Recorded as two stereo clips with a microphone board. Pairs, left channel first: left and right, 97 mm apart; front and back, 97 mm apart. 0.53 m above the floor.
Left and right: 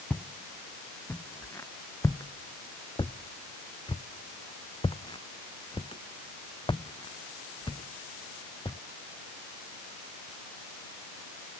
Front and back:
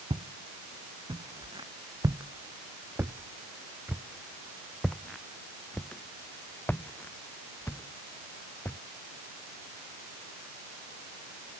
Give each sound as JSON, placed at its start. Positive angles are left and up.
{"t": 0.1, "sound": "footsteps", "azimuth_deg": 165}